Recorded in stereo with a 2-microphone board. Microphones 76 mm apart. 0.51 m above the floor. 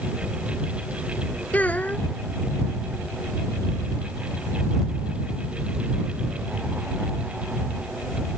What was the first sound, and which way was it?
A child speaking, 20° left (ahead or behind).